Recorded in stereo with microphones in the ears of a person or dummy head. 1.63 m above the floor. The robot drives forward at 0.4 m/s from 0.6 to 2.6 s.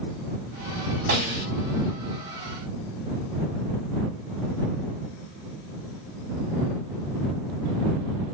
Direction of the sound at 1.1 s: 40° right (ahead or behind).